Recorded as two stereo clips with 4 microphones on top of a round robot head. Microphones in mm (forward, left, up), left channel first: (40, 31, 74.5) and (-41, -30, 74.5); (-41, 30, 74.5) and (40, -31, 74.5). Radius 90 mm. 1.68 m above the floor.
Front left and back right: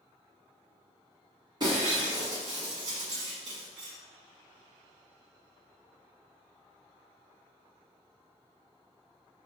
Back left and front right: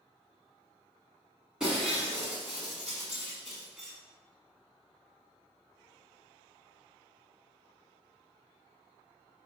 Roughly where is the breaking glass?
Behind right.